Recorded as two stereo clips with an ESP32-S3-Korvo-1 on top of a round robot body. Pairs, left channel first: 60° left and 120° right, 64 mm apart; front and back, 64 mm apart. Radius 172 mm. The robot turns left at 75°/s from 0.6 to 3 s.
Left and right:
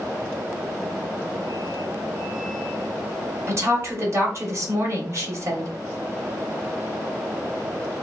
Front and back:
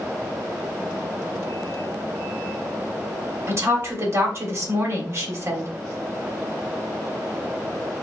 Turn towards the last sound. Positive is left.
turn(degrees=-150)